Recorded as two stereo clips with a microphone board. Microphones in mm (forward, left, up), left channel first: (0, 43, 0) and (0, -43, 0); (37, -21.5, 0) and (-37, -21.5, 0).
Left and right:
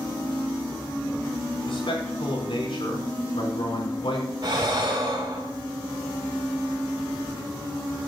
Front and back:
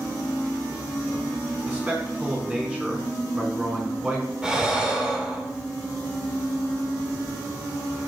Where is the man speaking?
110° left, 4.5 m.